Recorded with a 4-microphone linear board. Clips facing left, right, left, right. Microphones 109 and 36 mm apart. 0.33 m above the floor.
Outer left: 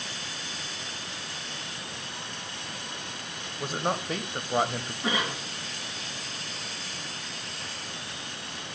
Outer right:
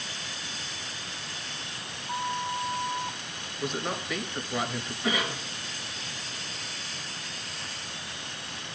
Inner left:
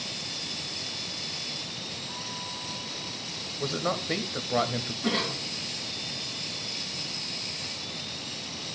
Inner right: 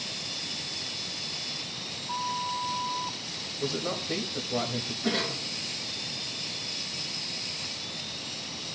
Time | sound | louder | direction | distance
2.1 | a flute | outer right 10 dB, inner right 6 dB | 75° right (ahead or behind) | 1.5 m
3.6 | a man speaking | outer left 2 dB, inner left 2 dB | 40° left (ahead or behind) | 1.2 m
5.0 | a cough | even, inner left 1 dB | 30° left (ahead or behind) | 3 m